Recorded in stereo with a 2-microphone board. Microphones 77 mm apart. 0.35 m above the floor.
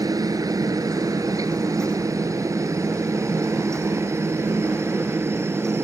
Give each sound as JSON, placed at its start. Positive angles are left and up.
{"t": 0.0, "sound": "a helicopter", "side_deg": -50}